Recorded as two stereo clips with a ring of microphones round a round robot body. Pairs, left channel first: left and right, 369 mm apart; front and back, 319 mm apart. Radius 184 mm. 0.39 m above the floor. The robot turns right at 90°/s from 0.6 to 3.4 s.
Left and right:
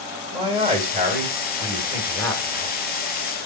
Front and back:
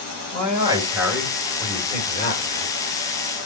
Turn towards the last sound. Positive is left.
turn(degrees=110)